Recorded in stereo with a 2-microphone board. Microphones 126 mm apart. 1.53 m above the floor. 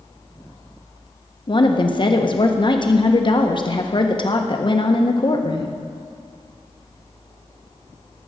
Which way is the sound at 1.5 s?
40° left (ahead or behind).